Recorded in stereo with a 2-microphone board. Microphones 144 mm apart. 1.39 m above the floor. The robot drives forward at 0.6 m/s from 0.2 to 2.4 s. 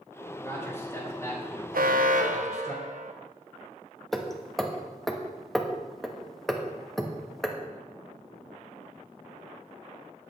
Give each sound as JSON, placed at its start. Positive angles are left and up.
{"t": 0.4, "sound": "a man speaking", "side_deg": 20, "distance_m": 4.5}
{"t": 1.7, "sound": "an alarm", "side_deg": -80, "distance_m": 0.9}
{"t": 4.1, "sound": "hammering", "side_deg": 0, "distance_m": 1.3}